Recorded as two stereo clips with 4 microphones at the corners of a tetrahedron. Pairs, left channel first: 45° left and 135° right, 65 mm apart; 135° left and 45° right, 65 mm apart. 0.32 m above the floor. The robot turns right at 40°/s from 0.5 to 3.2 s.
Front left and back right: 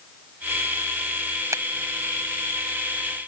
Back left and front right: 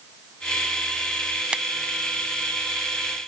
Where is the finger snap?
115° right; by 1.6 s 110° right.